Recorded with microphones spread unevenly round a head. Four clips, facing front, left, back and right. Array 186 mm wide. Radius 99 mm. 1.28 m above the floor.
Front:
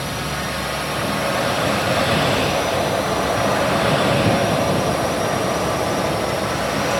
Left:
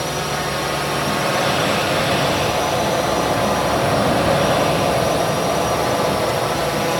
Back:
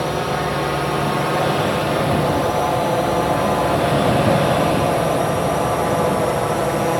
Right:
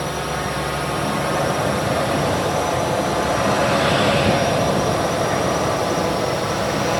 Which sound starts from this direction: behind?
A drone, at 0.0 s.